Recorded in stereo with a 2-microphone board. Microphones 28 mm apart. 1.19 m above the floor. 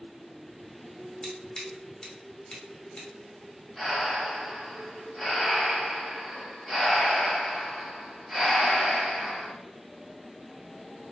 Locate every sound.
1.2 s scissors: 30° left (ahead or behind), 0.8 m
3.8 s breathing: 5° right (ahead or behind), 1.3 m